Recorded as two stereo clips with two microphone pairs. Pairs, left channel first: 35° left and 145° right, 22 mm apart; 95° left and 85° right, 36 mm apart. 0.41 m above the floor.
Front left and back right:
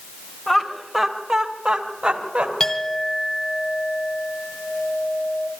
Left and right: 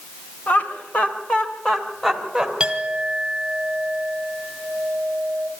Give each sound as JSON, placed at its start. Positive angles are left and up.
{"t": 0.5, "sound": "laughter", "azimuth_deg": 110, "distance_m": 2.5}
{"t": 2.6, "sound": "a clink", "azimuth_deg": -20, "distance_m": 2.0}